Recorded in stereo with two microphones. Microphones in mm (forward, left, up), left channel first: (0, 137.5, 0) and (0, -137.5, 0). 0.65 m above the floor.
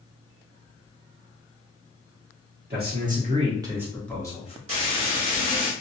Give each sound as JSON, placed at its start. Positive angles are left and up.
{"t": 2.7, "sound": "a man speaking", "side_deg": -35, "distance_m": 1.5}
{"t": 4.7, "sound": "frying", "side_deg": -50, "distance_m": 1.6}